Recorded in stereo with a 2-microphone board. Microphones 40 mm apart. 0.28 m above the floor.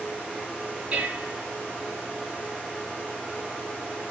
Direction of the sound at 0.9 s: 30° right (ahead or behind).